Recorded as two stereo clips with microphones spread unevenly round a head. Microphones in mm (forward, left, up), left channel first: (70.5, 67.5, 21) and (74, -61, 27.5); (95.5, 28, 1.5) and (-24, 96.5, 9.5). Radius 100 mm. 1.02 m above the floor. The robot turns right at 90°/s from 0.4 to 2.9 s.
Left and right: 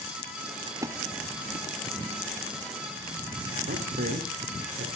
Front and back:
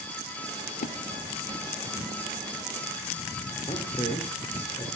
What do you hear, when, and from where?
0.7 s a splash: 40° right, 2.5 m; by 0.9 s 15° right, 2.5 m
3.7 s a man speaking: 95° right, 4 m